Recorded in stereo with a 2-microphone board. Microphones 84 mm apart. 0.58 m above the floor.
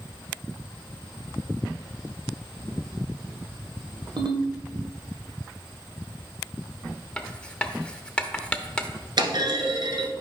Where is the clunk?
60° right (ahead or behind), 1.3 m.